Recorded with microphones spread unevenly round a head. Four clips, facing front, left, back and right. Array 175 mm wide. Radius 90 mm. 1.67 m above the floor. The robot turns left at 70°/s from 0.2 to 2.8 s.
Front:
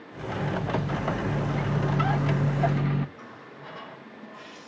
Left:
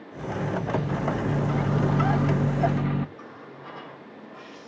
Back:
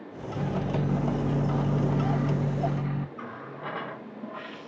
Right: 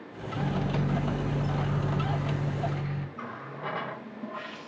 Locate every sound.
0.4 s a microwave: 135° right, 1.4 m; by 3.1 s 55° left, 1.4 m
3.2 s a running tap: 130° right, 1.3 m